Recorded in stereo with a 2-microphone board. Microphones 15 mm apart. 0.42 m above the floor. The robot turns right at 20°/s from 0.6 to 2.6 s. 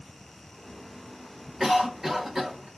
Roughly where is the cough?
Right.